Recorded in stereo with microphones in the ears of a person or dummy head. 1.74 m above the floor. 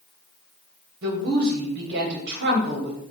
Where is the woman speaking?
55° right (ahead or behind), 0.9 m.